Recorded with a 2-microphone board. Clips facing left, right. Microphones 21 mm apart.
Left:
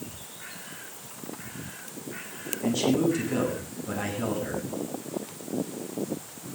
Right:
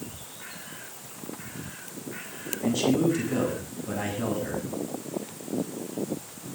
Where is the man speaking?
5° right (ahead or behind), 9.5 m.